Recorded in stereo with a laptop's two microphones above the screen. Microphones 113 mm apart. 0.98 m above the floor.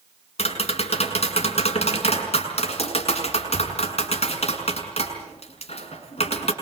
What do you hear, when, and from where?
0.4 s tapping: 65° left (ahead or behind), 6 m